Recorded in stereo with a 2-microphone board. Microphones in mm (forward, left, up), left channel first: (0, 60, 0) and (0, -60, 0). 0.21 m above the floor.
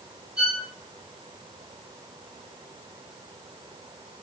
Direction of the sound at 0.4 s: 25° left (ahead or behind).